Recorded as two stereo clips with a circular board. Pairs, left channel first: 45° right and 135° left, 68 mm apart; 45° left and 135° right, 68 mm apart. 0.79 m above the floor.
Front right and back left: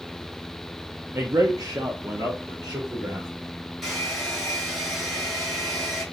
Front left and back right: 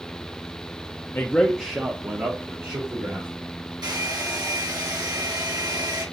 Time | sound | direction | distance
1.1 | a man speaking | 90° left | 0.7 m
3.8 | a hair dryer | 140° right | 3.5 m